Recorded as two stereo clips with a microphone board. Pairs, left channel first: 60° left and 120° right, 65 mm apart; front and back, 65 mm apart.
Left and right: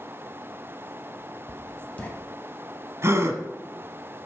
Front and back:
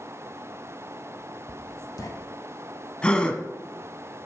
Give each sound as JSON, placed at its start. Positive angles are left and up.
{"t": 1.5, "sound": "writing", "azimuth_deg": -5, "distance_m": 1.7}
{"t": 3.0, "sound": "a gasp", "azimuth_deg": -75, "distance_m": 1.1}